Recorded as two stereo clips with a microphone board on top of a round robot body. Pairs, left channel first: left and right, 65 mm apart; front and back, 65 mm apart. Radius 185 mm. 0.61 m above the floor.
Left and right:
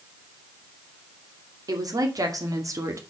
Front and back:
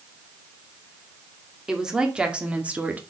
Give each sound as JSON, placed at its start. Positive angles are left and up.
{"t": 1.7, "sound": "a woman speaking", "azimuth_deg": -100, "distance_m": 2.5}